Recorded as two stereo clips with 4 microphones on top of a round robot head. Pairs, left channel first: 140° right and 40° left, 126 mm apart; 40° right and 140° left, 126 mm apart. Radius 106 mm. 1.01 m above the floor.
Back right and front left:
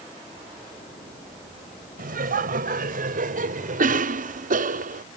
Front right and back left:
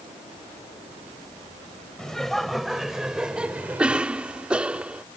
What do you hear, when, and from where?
2.0 s laughter: 45° left; by 4.1 s 60° left
3.8 s a cough: 55° left